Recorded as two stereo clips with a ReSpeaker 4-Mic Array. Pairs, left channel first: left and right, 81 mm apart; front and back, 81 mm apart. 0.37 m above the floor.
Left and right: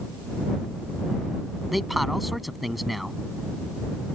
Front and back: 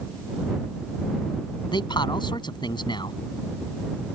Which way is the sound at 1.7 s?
Straight ahead.